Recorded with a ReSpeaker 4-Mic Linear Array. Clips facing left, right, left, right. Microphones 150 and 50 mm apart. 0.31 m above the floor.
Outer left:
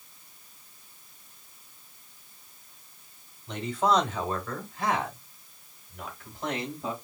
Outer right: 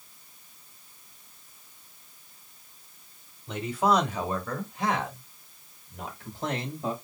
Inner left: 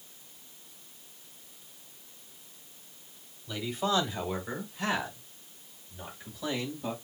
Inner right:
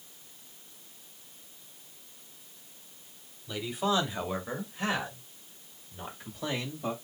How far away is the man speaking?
About 1.7 m.